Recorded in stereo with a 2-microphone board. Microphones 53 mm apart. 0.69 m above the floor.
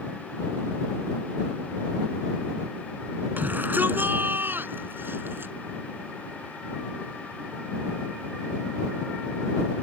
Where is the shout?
35° right (ahead or behind); by 5.5 s 45° right (ahead or behind).